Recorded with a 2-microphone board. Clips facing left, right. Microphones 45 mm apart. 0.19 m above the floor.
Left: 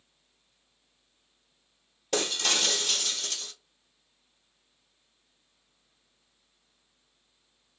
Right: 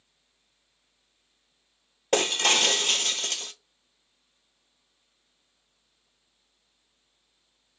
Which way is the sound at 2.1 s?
50° right (ahead or behind).